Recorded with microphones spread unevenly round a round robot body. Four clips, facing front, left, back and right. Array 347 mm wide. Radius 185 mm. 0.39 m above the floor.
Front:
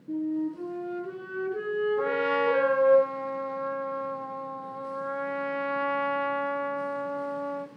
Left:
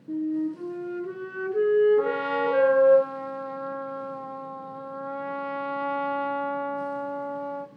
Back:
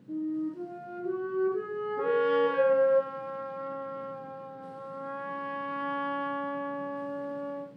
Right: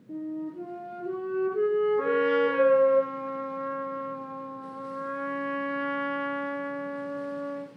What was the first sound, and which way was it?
A flute, 55° left.